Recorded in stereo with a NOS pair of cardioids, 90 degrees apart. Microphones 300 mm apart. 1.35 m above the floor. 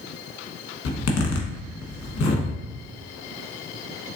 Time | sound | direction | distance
0.8 | a zipper | 50° left | 1.2 m